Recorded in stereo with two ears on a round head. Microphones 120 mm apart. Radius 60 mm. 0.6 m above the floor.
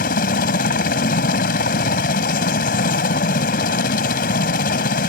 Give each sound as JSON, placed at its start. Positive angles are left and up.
{"t": 0.0, "sound": "a helicopter", "side_deg": 65}